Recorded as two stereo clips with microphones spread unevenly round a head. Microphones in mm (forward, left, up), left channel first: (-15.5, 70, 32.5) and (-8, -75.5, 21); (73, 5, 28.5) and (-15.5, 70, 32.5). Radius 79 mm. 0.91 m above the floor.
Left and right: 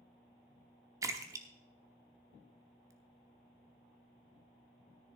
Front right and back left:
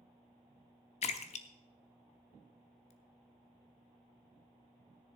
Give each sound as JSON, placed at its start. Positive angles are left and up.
{"t": 1.0, "sound": "a splash", "azimuth_deg": -15, "distance_m": 0.8}